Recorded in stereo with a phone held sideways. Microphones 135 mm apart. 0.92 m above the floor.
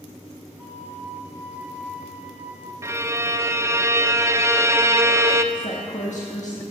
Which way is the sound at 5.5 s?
65° left (ahead or behind).